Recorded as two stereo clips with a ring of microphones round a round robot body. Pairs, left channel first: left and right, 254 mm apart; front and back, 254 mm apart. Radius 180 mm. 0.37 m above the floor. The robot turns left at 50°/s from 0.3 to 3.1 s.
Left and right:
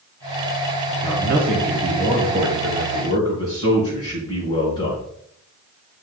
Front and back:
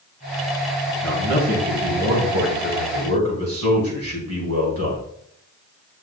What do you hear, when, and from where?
1.0 s a man speaking: 90° right, 3.5 m; by 5.0 s 165° left, 3.5 m